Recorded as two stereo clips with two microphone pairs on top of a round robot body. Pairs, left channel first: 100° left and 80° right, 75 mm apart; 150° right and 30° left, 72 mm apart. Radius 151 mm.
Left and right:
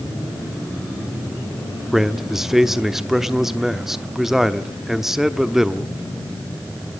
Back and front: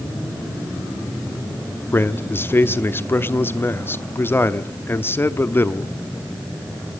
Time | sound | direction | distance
1.9 | a man speaking | 165° right | 1.2 m